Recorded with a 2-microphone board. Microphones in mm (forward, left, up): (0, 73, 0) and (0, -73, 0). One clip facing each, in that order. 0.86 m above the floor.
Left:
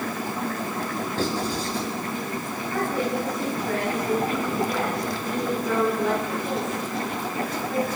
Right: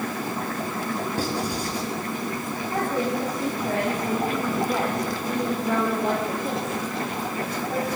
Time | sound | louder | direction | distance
1.2 | writing | left 1 dB | 15° right (ahead or behind) | 7.5 m
2.7 | a woman speaking | even | 35° right (ahead or behind) | 6.5 m